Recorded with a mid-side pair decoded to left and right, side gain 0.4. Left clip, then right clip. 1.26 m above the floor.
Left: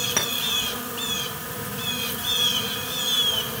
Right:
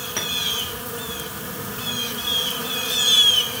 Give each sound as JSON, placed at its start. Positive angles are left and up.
{"t": 0.2, "sound": "a clink", "azimuth_deg": 40, "distance_m": 4.5}